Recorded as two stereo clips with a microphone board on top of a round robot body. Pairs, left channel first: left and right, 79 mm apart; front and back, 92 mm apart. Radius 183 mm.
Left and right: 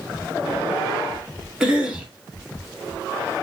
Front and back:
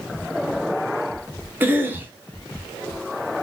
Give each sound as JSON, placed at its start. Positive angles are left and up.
{"t": 1.6, "sound": "a cough", "azimuth_deg": -155, "distance_m": 1.2}